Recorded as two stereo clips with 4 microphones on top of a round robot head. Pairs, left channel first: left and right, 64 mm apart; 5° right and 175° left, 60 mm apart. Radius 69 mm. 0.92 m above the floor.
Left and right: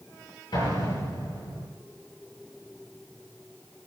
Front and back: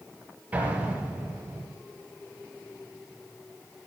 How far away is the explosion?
About 7 m.